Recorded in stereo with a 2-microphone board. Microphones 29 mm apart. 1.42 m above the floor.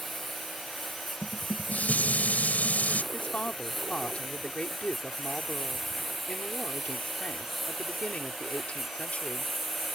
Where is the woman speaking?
50° left (ahead or behind).